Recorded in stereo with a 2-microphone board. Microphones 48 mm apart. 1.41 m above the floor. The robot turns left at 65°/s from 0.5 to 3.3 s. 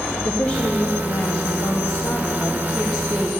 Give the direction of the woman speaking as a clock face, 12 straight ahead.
7 o'clock.